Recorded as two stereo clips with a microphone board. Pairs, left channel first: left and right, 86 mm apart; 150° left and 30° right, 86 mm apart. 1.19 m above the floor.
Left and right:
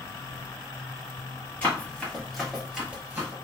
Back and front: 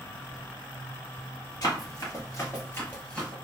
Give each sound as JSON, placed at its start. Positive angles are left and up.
{"t": 1.6, "sound": "running footsteps", "azimuth_deg": 150, "distance_m": 1.6}